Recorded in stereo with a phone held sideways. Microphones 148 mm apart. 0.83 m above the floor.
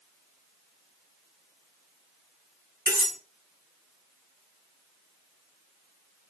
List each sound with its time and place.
2.9 s cutlery clinking: 75° right (ahead or behind), 2 m